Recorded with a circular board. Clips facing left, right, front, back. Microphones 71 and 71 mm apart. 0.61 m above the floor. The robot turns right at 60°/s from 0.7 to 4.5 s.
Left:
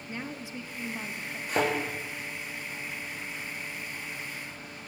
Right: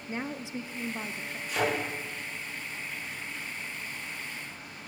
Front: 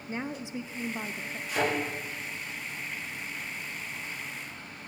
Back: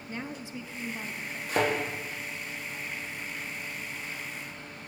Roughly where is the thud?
Behind left.